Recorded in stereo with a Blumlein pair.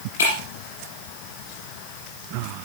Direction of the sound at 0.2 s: 60° left.